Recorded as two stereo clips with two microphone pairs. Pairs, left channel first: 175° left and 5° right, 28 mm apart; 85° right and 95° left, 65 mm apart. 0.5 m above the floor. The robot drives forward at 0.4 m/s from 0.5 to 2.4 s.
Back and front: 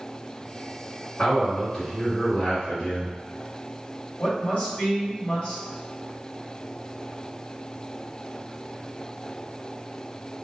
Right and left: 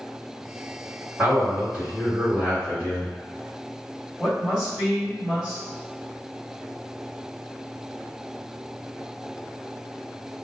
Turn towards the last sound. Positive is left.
turn(degrees=180)